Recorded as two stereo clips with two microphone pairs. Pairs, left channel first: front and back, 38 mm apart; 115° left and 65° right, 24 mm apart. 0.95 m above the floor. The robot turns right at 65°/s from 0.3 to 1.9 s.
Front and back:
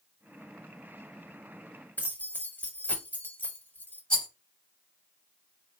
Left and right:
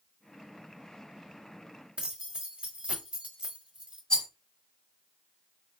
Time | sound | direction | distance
2.0 | keys jangling | 30° right | 1.0 m
4.1 | a rattle | 70° left | 1.8 m